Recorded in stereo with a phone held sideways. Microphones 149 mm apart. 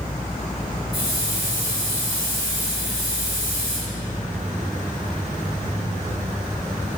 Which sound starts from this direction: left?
A hiss, at 0.9 s.